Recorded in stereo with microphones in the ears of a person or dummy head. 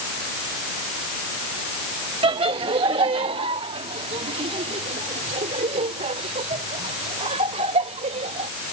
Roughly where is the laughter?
Right.